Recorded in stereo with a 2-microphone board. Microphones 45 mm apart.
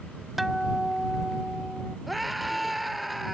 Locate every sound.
0.4 s a guitar: 5° right (ahead or behind)
2.1 s a scream: centre (ahead or behind)